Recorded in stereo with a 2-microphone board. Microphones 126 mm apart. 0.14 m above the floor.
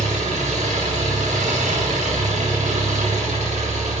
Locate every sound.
0.0 s an engine running: 85° right, 4 m